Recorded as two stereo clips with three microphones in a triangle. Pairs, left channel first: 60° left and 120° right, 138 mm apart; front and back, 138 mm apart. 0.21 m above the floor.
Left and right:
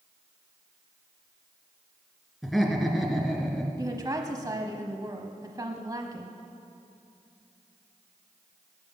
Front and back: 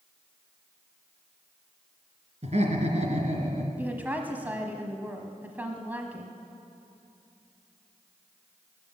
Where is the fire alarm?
I don't hear a fire alarm.